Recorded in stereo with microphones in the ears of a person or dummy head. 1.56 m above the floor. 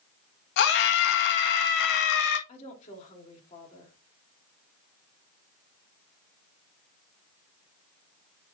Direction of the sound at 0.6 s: 65° left (ahead or behind).